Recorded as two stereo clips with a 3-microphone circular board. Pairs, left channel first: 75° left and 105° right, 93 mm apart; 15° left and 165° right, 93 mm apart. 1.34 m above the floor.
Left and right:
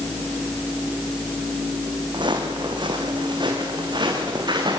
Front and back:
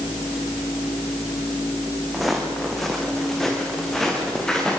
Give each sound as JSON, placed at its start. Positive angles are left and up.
{"t": 2.1, "sound": "footsteps", "azimuth_deg": -75, "distance_m": 4.5}